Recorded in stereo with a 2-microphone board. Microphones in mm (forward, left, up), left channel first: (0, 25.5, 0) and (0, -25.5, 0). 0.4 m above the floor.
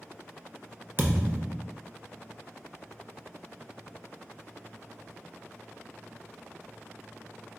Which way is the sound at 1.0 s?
45° right (ahead or behind).